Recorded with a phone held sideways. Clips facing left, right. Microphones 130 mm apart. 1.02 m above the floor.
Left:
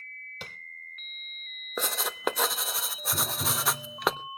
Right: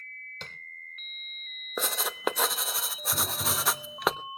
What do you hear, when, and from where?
0.4 s tapping: 10° left (ahead or behind), 1.1 m
1.8 s writing: centre (ahead or behind), 0.5 m
3.1 s tapping: 5° left (ahead or behind), 5.5 m